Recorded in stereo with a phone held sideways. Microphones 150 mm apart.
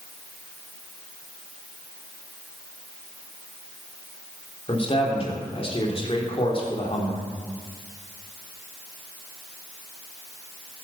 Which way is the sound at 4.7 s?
40° left (ahead or behind).